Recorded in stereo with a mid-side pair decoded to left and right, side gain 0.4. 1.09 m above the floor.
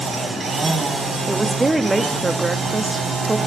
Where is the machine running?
45° right, 6 m.